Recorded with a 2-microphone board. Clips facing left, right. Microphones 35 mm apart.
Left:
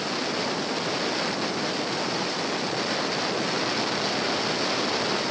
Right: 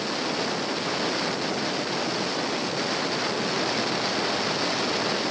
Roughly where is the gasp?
I don't hear a gasp.